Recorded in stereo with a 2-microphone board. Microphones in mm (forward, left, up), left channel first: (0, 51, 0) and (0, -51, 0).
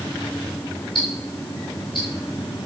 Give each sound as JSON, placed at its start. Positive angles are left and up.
{"t": 0.9, "sound": "ticking", "side_deg": 50, "distance_m": 5.5}